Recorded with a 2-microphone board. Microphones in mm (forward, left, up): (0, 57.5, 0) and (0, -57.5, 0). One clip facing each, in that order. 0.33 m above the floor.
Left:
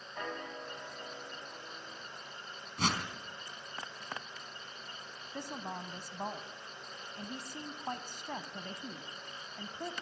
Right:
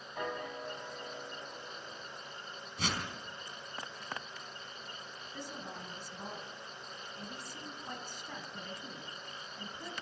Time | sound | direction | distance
0.1 | a piano | 10° right (ahead or behind) | 2.5 m
2.8 | a whoosh | 55° left (ahead or behind) | 3 m
5.3 | a woman speaking | 60° left (ahead or behind) | 2 m